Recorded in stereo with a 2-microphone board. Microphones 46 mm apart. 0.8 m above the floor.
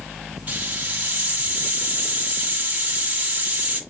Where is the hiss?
30° right (ahead or behind), 2 m.